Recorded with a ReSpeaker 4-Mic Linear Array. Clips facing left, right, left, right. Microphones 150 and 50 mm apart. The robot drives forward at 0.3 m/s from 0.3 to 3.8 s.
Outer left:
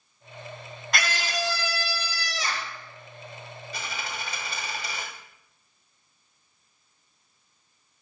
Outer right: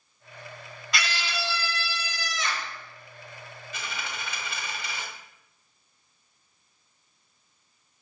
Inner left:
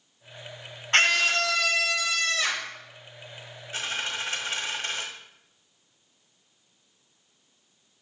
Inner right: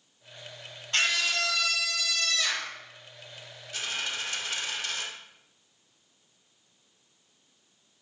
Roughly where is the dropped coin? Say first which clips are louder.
Outer left 1 dB, inner left 2 dB; left.